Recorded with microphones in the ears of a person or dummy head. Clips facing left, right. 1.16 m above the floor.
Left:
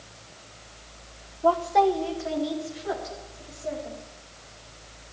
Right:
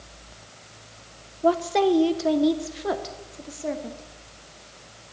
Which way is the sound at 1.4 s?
20° right (ahead or behind).